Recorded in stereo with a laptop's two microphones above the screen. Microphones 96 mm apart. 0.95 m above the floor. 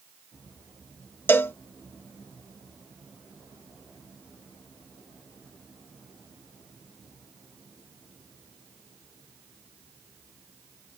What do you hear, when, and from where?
1.3 s a cowbell: 25° left (ahead or behind)